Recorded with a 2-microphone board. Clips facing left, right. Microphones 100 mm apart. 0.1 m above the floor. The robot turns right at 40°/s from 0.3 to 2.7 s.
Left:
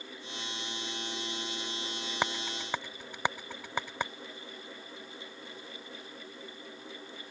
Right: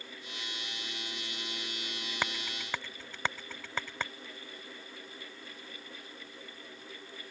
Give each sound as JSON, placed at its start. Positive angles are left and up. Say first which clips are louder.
{"t": 2.2, "sound": "a rattle", "louder": "left 4 dB", "side_deg": 20}